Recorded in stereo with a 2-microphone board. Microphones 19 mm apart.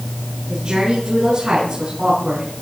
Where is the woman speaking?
60° right (ahead or behind), 6.5 m.